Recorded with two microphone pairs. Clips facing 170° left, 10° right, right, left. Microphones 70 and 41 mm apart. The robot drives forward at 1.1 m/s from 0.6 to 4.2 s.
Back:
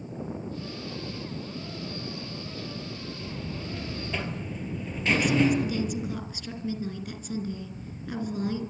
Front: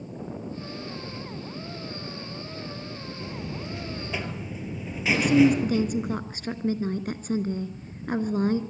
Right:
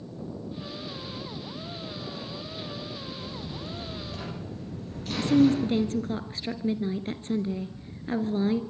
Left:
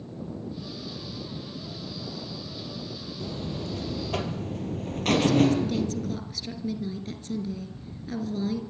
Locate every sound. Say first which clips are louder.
3.2 s a buzzer: front 3 dB, left 3 dB; 60° left, 4 m; by 6.2 s 75° left, 3.5 m
5.2 s a woman speaking: front 6 dB, right 3 dB; 40° right, 2 m